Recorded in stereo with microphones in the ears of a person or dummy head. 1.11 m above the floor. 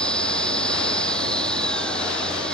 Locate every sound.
0.0 s an engine running: 5° left (ahead or behind)